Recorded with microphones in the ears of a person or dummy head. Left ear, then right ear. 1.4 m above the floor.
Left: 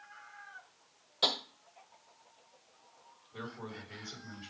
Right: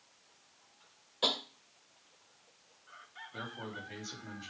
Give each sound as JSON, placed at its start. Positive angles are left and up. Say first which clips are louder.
{"t": 1.2, "sound": "tapping", "louder": "left 1 dB", "side_deg": 15, "distance_m": 1.6}
{"t": 3.3, "sound": "a man speaking", "louder": "right 1 dB", "side_deg": -50, "distance_m": 3.0}